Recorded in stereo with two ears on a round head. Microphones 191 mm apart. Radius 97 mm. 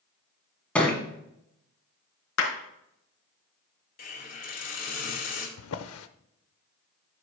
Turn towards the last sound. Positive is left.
turn(degrees=80)